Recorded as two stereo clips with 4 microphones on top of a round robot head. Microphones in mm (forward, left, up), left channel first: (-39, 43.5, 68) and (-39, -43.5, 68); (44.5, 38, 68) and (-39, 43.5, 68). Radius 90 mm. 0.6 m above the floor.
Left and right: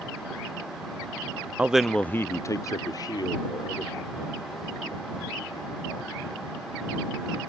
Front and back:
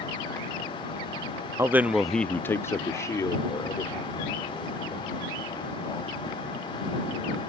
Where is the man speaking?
155° right; by 7.4 s 45° left.